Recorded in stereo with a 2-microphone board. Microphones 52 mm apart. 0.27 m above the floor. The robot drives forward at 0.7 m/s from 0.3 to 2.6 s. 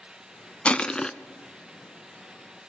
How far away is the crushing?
About 0.5 m.